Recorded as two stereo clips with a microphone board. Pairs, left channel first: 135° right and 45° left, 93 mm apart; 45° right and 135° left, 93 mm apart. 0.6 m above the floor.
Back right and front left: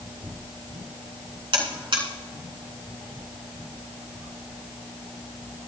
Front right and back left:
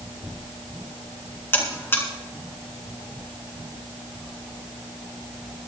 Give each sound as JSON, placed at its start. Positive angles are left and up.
{"t": 1.5, "sound": "a buzzer", "azimuth_deg": 20, "distance_m": 3.0}